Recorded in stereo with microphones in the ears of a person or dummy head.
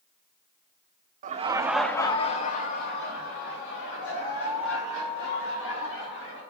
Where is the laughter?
40° right (ahead or behind), 0.8 m; by 6.4 s 70° left (ahead or behind), 4.5 m.